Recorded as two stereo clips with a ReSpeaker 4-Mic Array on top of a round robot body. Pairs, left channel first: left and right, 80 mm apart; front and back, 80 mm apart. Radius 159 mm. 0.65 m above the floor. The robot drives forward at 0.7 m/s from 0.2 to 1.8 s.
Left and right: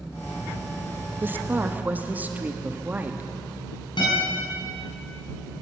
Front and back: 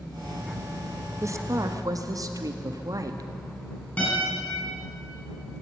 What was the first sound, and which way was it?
A woman speaking, 145° right.